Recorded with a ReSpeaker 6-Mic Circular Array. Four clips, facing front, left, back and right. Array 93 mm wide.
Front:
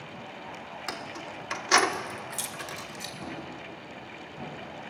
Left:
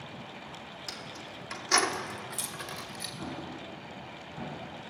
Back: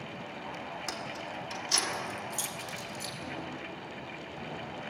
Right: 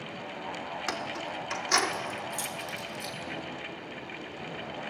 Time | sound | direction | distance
0.9 | keys jangling | 70° right | 1.2 m
3.2 | an explosion | 75° left | 7.5 m